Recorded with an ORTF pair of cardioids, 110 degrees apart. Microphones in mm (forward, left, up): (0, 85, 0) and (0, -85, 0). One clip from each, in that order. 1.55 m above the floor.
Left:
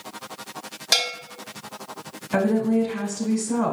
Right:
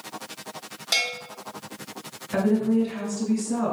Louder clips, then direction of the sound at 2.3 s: Left 2 dB; 25° left.